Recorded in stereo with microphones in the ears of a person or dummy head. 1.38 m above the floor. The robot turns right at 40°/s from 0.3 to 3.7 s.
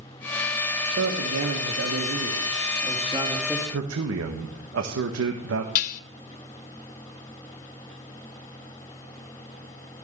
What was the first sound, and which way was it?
A man speaking, 105° right.